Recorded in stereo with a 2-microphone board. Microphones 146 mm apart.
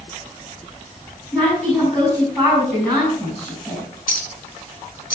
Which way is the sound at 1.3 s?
5° left (ahead or behind).